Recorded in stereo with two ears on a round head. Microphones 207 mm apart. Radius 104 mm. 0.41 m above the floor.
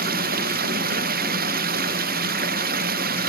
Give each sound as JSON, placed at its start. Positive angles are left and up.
{"t": 0.0, "sound": "running water", "side_deg": -40}